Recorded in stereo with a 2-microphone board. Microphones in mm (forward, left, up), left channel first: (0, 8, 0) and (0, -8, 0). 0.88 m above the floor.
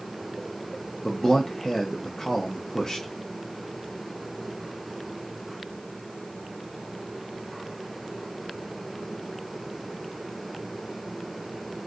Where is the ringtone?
I don't hear a ringtone.